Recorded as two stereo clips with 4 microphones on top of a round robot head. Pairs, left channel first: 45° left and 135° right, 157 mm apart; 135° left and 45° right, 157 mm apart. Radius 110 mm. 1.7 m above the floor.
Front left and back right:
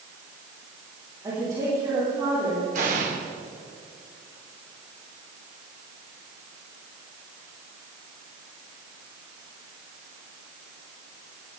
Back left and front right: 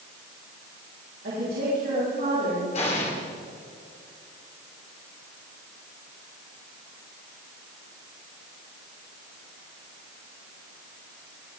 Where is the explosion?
175° right, 2.5 m.